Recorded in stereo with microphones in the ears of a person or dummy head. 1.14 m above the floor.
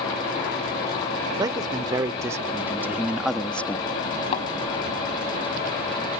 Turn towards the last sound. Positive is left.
turn(degrees=45)  # may be behind; listen again after turning